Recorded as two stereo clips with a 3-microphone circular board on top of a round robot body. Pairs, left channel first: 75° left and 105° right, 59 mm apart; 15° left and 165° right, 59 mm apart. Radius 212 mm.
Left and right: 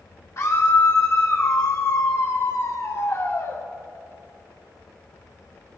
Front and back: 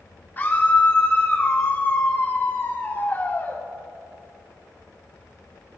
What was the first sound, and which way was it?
A scream, 65° left.